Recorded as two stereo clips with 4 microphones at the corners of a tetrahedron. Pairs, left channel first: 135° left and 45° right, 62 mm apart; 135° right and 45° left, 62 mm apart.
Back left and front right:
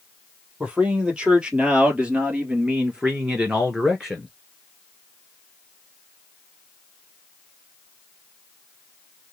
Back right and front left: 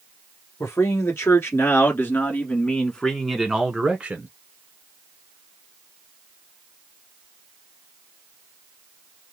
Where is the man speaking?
115° right, 1.8 m; by 4.3 s 35° left, 1.1 m.